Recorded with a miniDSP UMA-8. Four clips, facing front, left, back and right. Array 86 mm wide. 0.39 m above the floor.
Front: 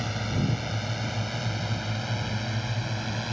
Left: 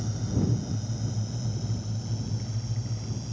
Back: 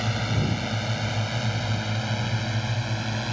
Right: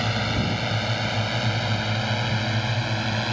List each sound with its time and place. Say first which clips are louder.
0.0 s a drone: right 5 dB, back 2 dB; 105° right; by 3.3 s 95° right